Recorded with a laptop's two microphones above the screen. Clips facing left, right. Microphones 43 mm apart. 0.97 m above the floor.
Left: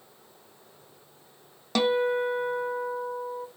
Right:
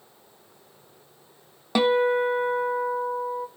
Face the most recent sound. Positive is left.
turn(degrees=-10)  # may be behind; listen again after turning